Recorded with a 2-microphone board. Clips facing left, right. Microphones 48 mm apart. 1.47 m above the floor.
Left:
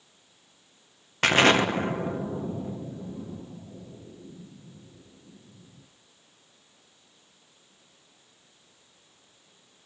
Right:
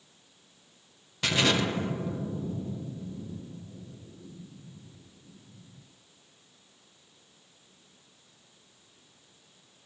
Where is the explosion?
50° left (ahead or behind), 1.3 m.